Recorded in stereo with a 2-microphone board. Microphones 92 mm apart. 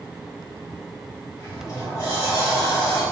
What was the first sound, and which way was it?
A sliding door, 35° left (ahead or behind).